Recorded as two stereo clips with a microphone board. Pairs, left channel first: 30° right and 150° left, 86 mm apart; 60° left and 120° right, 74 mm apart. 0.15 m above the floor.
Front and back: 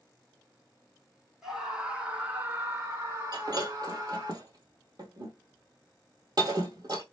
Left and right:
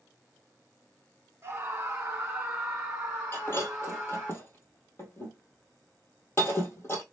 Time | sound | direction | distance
1.4 | a scream | 130° right | 1.4 m
3.3 | breaking glass | 115° left | 1.4 m